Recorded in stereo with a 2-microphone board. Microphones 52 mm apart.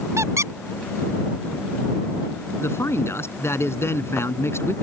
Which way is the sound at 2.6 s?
55° left (ahead or behind).